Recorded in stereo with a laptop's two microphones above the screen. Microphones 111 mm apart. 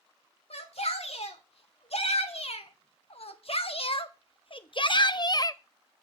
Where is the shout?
70° left (ahead or behind), 3 m; by 6.0 s 15° left (ahead or behind), 0.6 m.